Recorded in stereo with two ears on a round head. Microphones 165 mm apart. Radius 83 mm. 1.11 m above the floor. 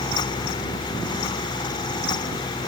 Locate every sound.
Only background noise.